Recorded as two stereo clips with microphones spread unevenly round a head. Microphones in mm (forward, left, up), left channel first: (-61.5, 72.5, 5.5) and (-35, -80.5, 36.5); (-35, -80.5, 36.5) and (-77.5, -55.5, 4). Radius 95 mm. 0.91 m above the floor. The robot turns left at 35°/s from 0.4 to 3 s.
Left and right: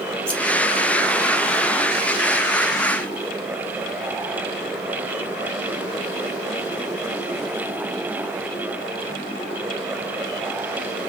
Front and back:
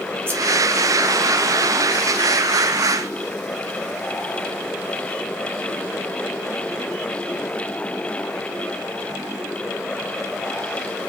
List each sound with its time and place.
0.3 s scissors: straight behind, 1.3 m